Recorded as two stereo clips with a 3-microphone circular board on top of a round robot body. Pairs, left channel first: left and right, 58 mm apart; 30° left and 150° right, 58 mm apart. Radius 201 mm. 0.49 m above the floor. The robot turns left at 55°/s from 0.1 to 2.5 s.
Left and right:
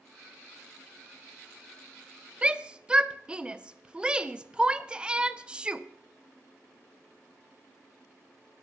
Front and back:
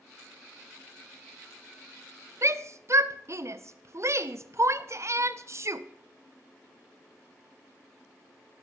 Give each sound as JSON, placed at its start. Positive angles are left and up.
{"t": 2.4, "sound": "a shout", "azimuth_deg": -155, "distance_m": 1.0}